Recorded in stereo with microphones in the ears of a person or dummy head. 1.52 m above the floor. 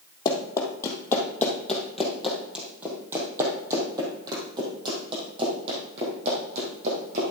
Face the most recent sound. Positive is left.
turn(degrees=-45)  # may be behind; listen again after turning